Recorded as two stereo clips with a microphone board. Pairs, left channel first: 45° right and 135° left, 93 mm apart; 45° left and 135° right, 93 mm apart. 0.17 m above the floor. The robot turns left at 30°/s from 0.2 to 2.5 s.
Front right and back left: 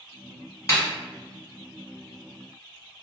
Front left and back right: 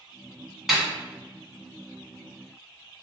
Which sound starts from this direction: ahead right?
A snare drum, at 0.7 s.